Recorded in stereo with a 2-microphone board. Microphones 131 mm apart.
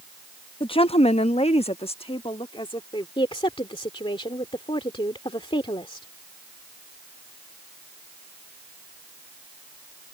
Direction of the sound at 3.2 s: 40° left (ahead or behind).